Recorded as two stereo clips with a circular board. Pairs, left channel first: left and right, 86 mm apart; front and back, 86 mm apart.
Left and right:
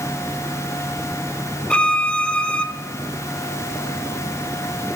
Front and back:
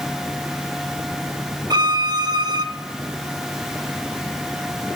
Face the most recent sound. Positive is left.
turn(degrees=165)